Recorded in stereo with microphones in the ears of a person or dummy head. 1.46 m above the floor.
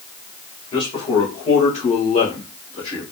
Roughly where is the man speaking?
Left.